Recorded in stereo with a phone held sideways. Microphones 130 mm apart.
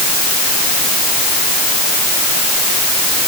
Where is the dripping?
No dripping in this recording.